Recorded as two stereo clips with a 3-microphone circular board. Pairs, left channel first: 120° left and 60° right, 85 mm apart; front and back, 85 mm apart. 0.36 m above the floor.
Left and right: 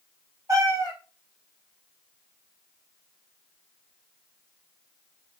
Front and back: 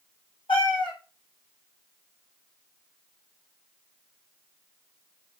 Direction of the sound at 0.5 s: 5° right.